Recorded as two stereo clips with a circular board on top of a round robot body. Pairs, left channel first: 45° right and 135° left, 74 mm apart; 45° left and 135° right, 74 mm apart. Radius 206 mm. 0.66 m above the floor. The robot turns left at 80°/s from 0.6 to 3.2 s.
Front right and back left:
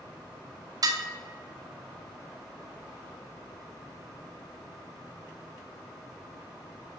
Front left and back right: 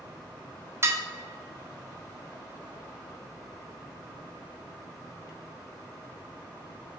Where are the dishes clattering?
170° left, 0.7 m; by 1.0 s 155° left, 0.7 m.